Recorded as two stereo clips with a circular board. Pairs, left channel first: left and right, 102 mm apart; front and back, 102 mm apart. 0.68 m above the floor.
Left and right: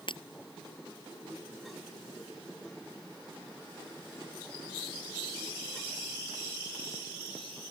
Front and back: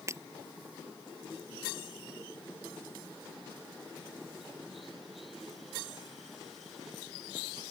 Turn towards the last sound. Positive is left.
turn(degrees=120)